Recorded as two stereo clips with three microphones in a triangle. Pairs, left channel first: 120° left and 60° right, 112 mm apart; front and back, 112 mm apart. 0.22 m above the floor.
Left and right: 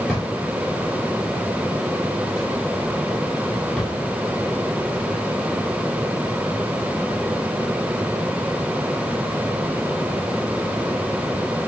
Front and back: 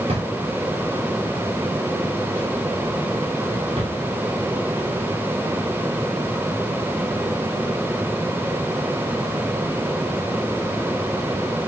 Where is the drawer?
155° right, 7 m.